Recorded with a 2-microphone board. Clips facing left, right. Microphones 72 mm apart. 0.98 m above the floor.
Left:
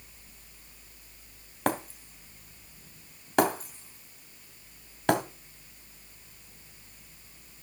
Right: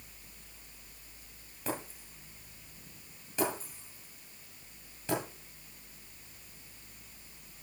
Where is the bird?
I don't hear a bird.